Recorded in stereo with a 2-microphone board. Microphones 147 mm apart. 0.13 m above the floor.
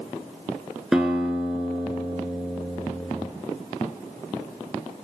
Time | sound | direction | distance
0.9 | a guitar | 5° right (ahead or behind) | 0.5 m